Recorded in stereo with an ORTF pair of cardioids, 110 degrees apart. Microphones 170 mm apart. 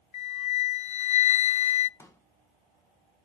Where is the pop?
15° left, 1.8 m.